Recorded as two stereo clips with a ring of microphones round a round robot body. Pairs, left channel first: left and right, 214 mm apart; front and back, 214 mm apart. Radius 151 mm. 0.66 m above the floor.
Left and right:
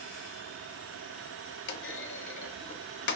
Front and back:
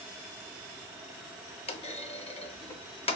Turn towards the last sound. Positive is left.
turn(degrees=60)